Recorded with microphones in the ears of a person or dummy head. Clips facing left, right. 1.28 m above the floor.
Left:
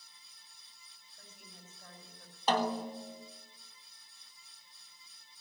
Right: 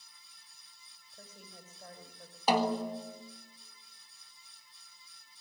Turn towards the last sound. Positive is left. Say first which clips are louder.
# right 3 dB
turn(degrees=-10)  # may be behind; listen again after turning